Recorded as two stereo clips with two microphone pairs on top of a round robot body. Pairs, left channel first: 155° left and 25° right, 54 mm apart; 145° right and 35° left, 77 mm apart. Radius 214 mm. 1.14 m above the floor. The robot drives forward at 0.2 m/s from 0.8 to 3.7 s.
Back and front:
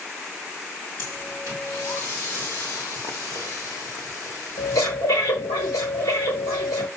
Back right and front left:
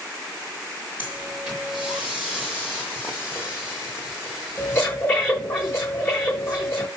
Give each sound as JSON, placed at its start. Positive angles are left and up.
{"t": 1.0, "sound": "breathing", "azimuth_deg": 120, "distance_m": 0.9}